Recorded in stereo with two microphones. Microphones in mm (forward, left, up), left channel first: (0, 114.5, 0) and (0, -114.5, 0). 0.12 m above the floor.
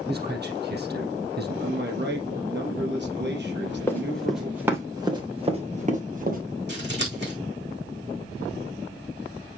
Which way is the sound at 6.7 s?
50° right (ahead or behind).